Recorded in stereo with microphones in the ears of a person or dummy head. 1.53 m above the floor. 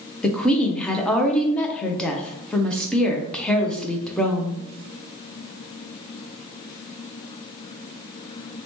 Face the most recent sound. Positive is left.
turn(degrees=10)  # may be behind; listen again after turning